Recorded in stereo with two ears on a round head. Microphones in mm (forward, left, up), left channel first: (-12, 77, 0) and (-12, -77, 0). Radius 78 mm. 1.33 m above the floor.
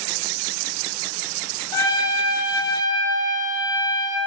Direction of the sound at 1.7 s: 20° left (ahead or behind).